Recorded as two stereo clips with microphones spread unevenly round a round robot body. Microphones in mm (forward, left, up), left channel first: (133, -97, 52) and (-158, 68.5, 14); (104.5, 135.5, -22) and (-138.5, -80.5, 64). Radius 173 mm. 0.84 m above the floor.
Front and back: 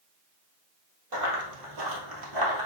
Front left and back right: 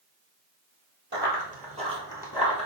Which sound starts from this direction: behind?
Running footsteps, at 1.1 s.